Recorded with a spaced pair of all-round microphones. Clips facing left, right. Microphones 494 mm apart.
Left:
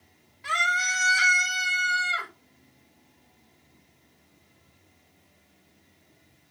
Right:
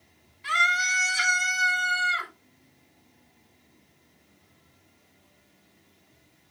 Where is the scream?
65° left (ahead or behind), 3 m; by 2.3 s 80° left, 3.5 m.